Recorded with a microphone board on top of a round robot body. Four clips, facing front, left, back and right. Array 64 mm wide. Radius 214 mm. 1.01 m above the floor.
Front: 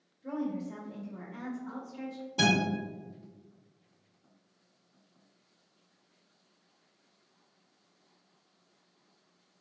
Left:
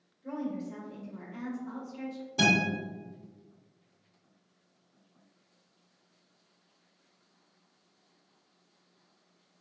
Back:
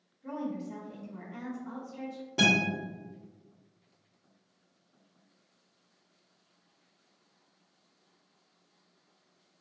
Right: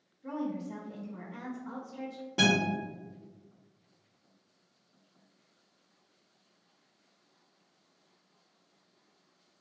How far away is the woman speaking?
About 1.1 m.